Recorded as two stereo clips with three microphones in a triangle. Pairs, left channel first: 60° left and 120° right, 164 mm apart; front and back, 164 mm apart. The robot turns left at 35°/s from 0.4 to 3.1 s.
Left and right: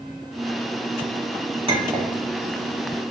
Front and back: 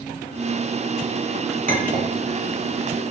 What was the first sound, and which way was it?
A clink, 170° right.